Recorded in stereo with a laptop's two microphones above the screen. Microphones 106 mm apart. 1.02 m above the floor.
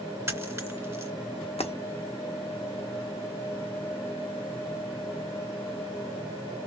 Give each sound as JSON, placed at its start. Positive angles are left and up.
{"t": 0.3, "sound": "a dropped coin", "side_deg": -25, "distance_m": 2.5}
{"t": 1.6, "sound": "breaking glass", "side_deg": 70, "distance_m": 0.7}